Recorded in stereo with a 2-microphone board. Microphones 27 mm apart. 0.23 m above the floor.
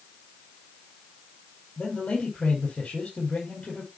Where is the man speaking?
75° left (ahead or behind), 5 m.